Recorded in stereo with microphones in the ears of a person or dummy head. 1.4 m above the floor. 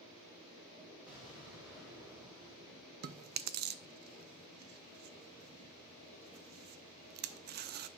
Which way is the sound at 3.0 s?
50° right (ahead or behind).